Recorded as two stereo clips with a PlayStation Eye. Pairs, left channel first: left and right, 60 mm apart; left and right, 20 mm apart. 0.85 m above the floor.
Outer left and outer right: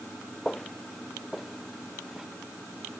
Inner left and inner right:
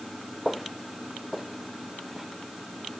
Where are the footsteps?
10° left (ahead or behind); by 2.3 s 5° right (ahead or behind).